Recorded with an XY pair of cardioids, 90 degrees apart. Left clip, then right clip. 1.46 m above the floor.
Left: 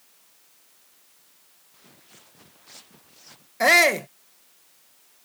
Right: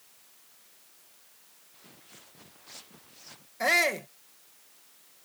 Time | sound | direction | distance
1.7 | footsteps | 5° left | ?
3.6 | a shout | 60° left | ?